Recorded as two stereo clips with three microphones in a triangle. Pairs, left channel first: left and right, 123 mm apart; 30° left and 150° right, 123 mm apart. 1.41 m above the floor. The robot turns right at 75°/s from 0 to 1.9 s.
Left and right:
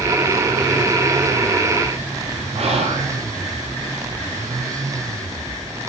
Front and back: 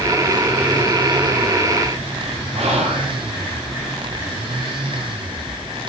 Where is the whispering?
120° right, 5 m.